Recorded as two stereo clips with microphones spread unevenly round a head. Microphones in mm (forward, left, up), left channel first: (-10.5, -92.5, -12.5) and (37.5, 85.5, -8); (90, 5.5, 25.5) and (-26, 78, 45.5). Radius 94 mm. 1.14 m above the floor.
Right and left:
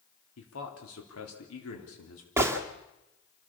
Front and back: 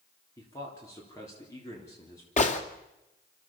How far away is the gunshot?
About 2.5 m.